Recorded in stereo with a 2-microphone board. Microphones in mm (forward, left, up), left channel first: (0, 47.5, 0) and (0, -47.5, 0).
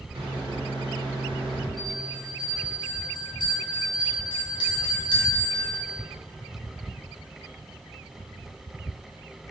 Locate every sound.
0.1 s a microwave: 75° right (ahead or behind), 1.5 m
1.8 s a bell: 60° left (ahead or behind), 2 m